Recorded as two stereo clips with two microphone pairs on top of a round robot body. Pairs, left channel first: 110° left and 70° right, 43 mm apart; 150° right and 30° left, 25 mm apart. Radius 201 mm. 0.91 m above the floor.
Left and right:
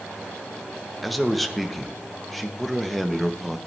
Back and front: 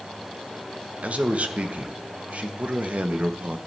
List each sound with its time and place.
1.0 s a man speaking: 20° left, 1.3 m